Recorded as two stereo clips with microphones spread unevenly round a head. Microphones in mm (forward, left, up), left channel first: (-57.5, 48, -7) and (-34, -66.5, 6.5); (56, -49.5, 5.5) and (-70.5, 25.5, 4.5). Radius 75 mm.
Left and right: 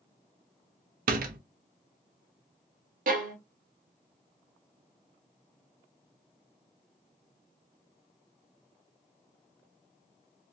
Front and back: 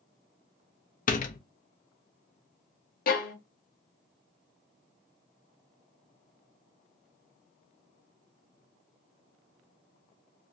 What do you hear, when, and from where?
1.1 s a door slam: 70° right, 0.6 m
3.1 s a violin: 55° right, 0.7 m